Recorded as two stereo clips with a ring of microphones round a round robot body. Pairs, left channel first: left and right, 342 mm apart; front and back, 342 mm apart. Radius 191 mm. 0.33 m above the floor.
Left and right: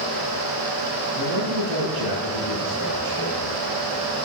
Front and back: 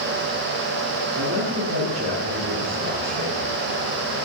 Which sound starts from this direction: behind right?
A man speaking, at 1.2 s.